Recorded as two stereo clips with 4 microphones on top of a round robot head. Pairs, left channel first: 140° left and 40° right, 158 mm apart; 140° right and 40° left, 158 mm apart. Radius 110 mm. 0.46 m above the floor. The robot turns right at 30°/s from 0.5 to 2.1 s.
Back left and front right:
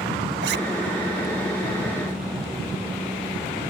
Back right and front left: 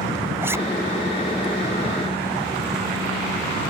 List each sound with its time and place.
0.4 s a zipper: 35° right; by 0.6 s 30° right